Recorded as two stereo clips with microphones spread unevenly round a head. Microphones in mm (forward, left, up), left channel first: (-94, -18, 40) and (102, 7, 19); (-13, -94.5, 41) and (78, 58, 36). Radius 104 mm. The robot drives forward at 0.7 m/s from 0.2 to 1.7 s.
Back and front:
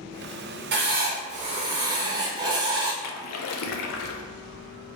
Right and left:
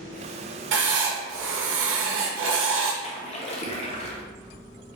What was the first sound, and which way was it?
Writing, 45° left.